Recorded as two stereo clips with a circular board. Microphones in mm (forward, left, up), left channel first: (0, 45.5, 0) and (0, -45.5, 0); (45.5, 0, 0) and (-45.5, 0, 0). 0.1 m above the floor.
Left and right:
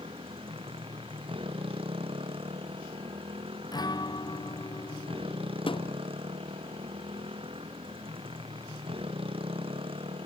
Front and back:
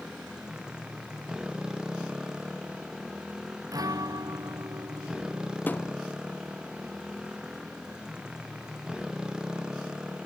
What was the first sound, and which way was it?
A motorcycle, 100° right.